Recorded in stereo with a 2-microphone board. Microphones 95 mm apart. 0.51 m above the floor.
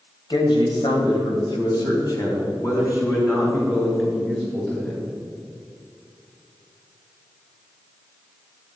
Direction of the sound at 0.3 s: 60° left (ahead or behind).